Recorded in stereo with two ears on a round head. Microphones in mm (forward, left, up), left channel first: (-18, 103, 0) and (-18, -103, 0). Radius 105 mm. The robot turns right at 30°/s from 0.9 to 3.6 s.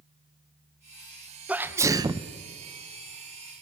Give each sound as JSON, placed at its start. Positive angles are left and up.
{"t": 1.5, "sound": "a sneeze", "side_deg": -5, "distance_m": 0.6}